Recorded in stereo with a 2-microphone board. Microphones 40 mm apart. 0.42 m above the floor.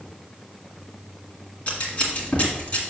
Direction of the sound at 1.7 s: 35° left (ahead or behind).